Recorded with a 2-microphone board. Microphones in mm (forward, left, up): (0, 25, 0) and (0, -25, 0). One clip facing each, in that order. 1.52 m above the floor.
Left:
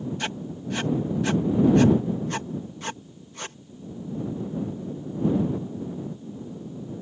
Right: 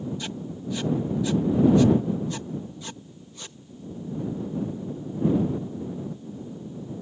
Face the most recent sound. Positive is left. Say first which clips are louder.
# left 2 dB
turn(degrees=60)  # may be behind; listen again after turning